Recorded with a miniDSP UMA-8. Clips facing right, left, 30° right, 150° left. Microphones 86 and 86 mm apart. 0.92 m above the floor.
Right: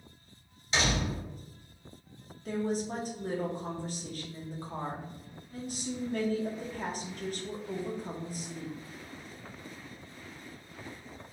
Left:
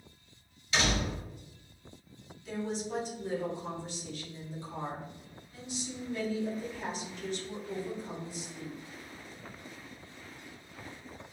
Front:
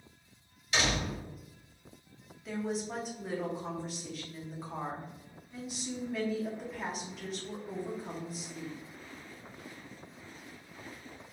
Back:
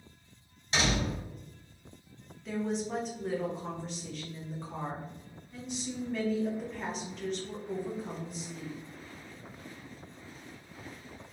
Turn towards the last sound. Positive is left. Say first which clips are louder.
# right 4 dB, back 2 dB
turn(degrees=-115)